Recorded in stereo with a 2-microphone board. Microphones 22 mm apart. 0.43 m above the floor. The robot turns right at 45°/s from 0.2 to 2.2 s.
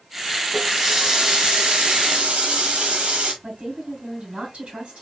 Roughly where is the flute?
No flute in this recording.